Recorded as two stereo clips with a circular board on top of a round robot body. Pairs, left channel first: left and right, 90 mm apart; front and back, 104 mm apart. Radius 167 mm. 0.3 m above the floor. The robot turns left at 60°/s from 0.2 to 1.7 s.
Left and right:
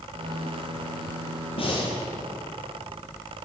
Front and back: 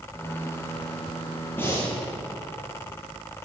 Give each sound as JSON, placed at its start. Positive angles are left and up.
{"t": 1.6, "sound": "breathing", "azimuth_deg": 75, "distance_m": 4.0}